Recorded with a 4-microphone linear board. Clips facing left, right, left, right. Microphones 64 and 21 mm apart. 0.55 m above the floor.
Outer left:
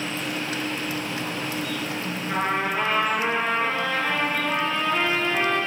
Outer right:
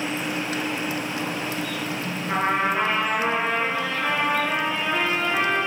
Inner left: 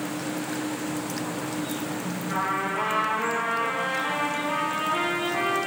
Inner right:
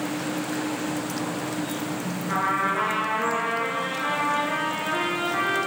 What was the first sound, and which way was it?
A trumpet, 15° right (ahead or behind).